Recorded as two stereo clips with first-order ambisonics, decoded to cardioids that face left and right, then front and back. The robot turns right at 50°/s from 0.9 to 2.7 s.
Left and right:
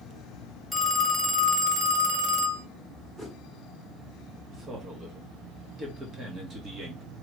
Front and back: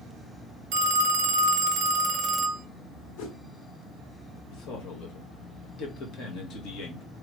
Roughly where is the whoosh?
Ahead.